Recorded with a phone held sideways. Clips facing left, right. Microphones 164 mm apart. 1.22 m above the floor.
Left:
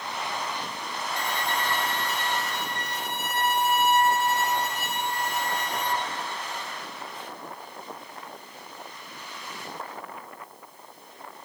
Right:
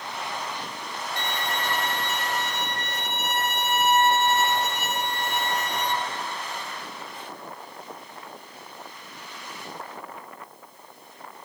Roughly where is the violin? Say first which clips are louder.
Left 1 dB; right.